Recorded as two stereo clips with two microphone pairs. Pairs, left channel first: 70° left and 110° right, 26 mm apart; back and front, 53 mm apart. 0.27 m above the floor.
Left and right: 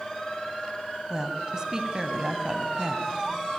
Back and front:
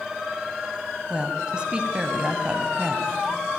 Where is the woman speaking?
65° right, 1.7 m.